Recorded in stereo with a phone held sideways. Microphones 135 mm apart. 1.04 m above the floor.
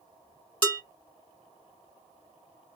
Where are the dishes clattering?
40° right (ahead or behind), 3.5 m.